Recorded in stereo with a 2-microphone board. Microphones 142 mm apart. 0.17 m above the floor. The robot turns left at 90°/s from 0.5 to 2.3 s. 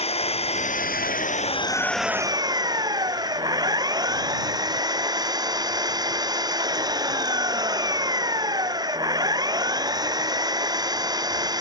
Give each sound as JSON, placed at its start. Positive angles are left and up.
{"t": 0.0, "sound": "an engine running", "azimuth_deg": 135}